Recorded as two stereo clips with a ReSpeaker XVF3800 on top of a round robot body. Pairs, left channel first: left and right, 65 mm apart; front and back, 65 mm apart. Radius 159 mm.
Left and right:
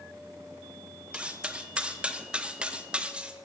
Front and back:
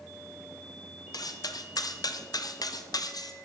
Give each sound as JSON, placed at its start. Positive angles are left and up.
{"t": 1.1, "sound": "cutlery clinking", "azimuth_deg": -15, "distance_m": 1.1}